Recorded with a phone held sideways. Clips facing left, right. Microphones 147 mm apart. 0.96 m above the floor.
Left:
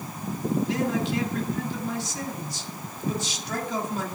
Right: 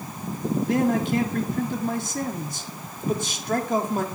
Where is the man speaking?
55° right (ahead or behind), 2.0 m.